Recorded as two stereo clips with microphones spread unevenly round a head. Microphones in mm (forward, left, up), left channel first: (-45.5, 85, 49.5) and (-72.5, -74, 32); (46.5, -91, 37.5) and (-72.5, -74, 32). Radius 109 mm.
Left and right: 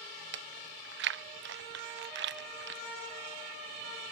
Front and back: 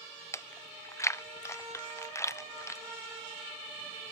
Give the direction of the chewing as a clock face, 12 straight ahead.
3 o'clock.